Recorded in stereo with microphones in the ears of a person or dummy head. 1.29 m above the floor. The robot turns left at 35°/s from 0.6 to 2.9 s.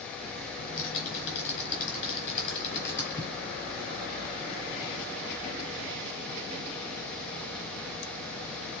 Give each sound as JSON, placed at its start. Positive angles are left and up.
{"t": 0.6, "sound": "typing on a keyboard", "side_deg": 70, "distance_m": 3.5}